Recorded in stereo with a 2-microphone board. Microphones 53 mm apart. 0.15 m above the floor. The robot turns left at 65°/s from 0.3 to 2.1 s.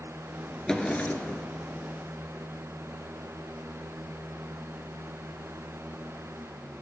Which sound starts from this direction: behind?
A drawer, at 0.7 s.